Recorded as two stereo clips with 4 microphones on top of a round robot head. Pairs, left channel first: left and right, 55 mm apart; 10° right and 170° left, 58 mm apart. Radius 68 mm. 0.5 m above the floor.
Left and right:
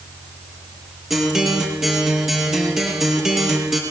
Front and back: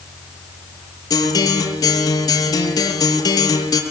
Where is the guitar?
5° right, 7.5 m.